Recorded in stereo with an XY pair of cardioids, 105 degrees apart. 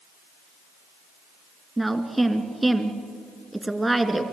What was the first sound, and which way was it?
A woman speaking, 15° right.